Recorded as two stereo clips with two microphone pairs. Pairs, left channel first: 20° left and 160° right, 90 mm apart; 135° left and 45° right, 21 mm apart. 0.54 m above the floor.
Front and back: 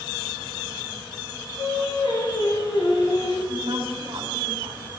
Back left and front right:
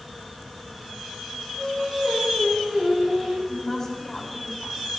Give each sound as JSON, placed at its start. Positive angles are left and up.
{"t": 1.6, "sound": "singing", "azimuth_deg": 5, "distance_m": 6.0}
{"t": 3.5, "sound": "a woman speaking", "azimuth_deg": -150, "distance_m": 3.0}